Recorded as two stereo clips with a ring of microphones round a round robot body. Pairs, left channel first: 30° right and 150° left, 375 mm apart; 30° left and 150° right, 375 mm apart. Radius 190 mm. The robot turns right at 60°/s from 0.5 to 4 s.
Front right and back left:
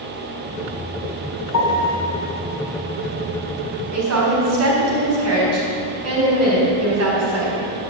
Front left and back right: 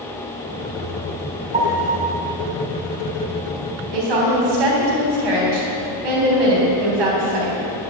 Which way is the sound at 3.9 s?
165° right.